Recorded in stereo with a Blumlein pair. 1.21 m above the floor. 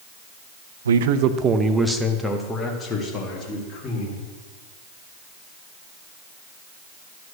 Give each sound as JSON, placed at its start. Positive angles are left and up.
{"t": 0.8, "sound": "a man speaking", "azimuth_deg": -70, "distance_m": 0.5}